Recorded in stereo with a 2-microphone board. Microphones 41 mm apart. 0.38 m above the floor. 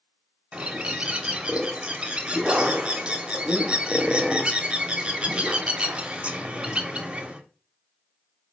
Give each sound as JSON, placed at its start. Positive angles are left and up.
{"t": 0.5, "sound": "a bird", "side_deg": -25, "distance_m": 0.6}